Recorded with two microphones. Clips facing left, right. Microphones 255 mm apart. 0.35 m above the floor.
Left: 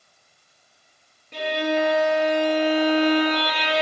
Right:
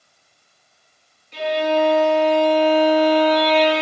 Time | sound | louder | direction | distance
1.3 | a violin | right 4 dB | 55° left (ahead or behind) | 5.5 m